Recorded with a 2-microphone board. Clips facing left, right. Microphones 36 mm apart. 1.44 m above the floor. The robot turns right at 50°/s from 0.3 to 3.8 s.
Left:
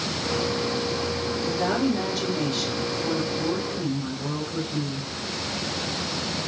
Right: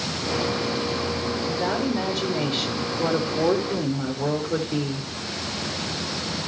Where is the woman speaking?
145° left, 5 m; by 5.1 s 100° right, 5 m.